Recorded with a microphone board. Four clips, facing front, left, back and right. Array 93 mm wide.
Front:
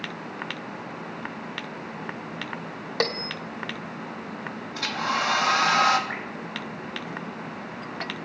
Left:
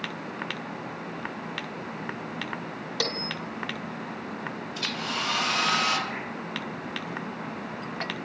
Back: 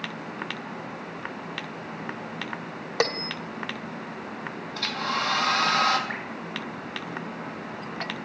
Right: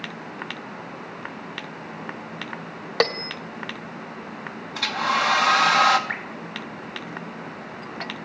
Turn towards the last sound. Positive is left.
turn(degrees=-100)